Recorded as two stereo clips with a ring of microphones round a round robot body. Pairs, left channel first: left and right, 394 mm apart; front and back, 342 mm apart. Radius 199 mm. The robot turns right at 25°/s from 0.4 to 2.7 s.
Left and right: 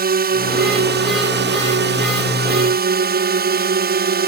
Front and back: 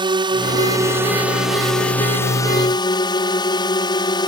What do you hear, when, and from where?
0.0 s a drone: 120° right; by 4.3 s 65° right